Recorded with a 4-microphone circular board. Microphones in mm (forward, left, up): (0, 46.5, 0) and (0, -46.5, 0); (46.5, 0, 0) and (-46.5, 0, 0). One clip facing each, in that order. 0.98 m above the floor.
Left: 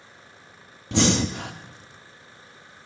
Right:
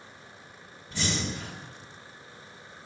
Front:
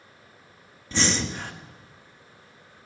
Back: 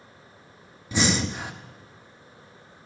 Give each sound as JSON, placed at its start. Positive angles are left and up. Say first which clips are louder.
{"t": 0.9, "sound": "breathing", "louder": "left 10 dB, back 2 dB", "azimuth_deg": 100, "distance_m": 0.8}